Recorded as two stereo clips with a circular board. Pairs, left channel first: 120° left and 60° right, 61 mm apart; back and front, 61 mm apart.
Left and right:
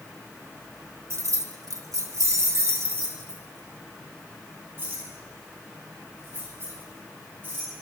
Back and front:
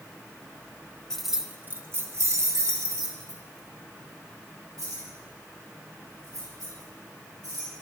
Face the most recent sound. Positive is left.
turn(degrees=-5)